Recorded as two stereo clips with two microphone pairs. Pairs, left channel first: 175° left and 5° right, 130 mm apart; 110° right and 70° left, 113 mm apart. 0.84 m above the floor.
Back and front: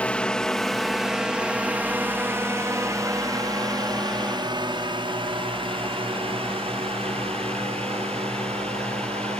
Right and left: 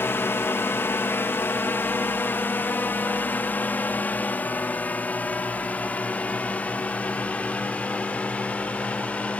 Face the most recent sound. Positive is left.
turn(degrees=-35)